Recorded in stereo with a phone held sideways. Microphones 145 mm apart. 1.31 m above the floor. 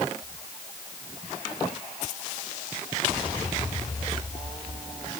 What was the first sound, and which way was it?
Only background noise.